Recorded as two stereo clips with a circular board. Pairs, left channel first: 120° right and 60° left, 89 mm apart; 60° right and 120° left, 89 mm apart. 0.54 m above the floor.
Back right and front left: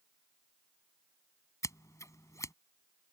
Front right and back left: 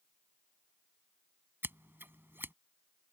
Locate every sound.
1.6 s scissors: 175° right